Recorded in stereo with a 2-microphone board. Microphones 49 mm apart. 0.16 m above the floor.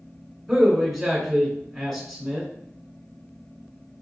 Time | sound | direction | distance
0.5 | a man speaking | centre (ahead or behind) | 1.3 m